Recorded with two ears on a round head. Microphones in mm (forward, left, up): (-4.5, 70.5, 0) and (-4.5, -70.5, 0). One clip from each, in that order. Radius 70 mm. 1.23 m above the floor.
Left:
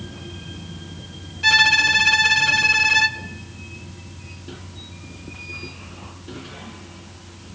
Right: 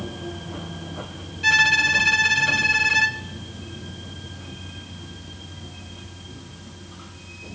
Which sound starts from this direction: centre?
A violin, at 1.4 s.